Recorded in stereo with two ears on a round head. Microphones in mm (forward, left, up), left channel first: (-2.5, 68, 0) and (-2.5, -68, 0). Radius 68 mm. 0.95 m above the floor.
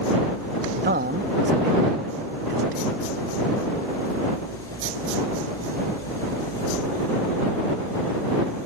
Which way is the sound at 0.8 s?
65° right (ahead or behind).